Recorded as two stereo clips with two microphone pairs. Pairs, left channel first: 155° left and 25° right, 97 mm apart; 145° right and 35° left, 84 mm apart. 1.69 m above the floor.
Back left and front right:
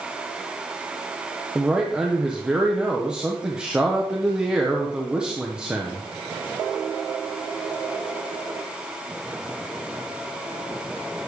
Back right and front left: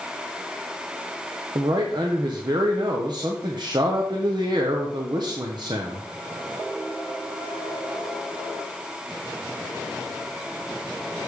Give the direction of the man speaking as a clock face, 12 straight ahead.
10 o'clock.